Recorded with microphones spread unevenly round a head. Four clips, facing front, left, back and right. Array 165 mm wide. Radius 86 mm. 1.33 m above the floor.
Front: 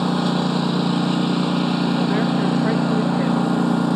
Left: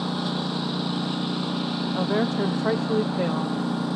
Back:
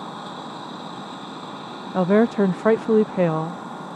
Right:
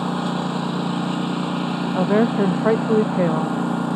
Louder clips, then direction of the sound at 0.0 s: Right 4 dB, front 13 dB; 15° right.